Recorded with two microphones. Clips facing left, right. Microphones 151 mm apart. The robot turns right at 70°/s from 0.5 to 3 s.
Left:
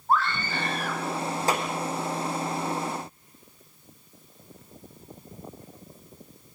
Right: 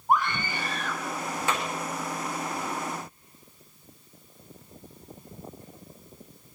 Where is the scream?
15° right, 3 m; by 1.4 s 45° left, 3 m.